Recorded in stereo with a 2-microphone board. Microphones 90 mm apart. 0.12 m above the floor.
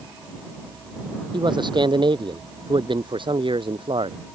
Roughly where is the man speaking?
Right.